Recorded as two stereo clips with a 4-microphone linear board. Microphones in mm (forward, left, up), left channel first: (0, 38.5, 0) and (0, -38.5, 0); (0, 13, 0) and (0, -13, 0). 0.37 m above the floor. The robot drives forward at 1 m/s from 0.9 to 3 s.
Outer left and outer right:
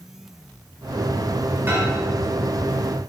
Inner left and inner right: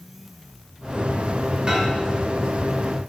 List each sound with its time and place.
1.7 s a microwave: 30° right (ahead or behind), 1.0 m